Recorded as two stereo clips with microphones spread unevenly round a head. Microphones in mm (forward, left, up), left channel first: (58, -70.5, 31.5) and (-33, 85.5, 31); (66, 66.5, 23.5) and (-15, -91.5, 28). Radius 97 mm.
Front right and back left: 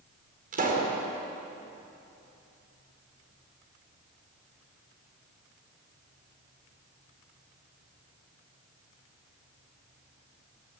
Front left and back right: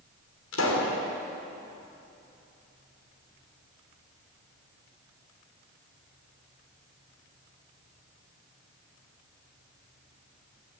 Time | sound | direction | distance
0.5 | a pop | 75° left | 5 m